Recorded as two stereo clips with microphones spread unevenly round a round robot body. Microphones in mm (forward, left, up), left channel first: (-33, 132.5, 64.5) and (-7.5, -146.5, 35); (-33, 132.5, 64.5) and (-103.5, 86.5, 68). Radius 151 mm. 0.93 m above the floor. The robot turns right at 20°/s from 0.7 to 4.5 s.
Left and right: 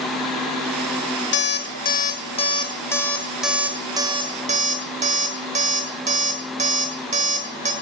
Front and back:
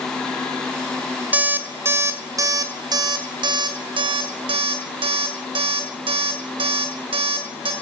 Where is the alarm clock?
145° left, 1.7 m; by 7.7 s 155° right, 1.7 m.